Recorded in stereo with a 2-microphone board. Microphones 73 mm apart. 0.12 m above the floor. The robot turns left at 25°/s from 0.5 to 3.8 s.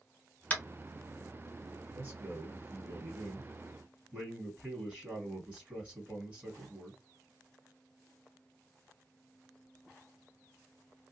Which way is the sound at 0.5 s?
20° left (ahead or behind).